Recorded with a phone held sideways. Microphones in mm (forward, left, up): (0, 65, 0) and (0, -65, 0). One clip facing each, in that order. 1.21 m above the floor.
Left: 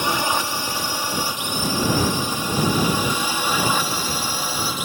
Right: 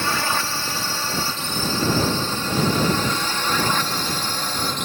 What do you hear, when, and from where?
0.0 s a drone: 15° left (ahead or behind); by 4.8 s 10° left (ahead or behind)